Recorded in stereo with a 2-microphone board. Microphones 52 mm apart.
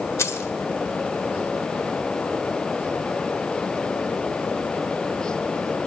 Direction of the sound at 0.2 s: 65° left (ahead or behind).